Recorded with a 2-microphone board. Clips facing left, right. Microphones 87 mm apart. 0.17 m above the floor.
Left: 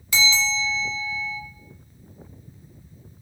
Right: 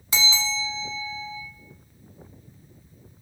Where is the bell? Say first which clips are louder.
Left 4 dB; 30° right (ahead or behind), 0.5 m.